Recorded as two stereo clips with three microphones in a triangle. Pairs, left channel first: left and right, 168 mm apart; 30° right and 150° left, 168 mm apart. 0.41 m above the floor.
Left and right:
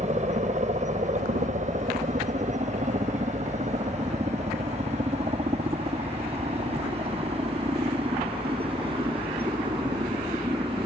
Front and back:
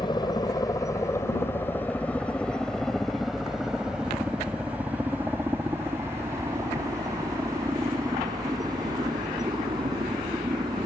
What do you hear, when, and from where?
0.0 s a helicopter: 80° right; by 10.9 s 150° right